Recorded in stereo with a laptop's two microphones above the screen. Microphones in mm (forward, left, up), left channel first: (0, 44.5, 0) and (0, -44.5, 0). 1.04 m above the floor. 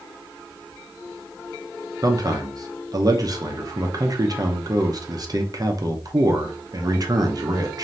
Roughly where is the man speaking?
Right.